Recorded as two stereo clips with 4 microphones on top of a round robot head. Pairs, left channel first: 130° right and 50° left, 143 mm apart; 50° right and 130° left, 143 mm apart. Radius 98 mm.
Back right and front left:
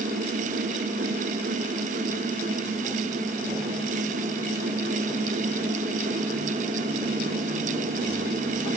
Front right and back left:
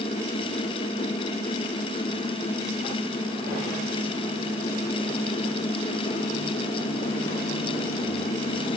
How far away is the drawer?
I don't hear a drawer.